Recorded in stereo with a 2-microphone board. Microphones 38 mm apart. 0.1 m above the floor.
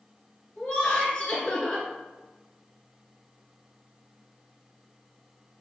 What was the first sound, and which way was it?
Laughter, 20° left (ahead or behind).